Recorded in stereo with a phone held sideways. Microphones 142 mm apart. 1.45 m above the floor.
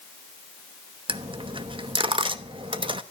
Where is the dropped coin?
35° right (ahead or behind), 0.9 m.